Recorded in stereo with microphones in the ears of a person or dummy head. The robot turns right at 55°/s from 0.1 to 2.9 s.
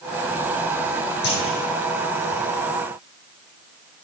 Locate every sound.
1.2 s a clunk: 65° left (ahead or behind), 10 m; by 1.6 s 85° left, 10 m